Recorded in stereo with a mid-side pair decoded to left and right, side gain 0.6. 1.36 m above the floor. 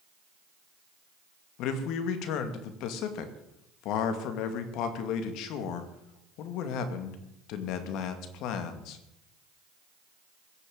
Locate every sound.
1.6 s a man speaking: 70° left, 2 m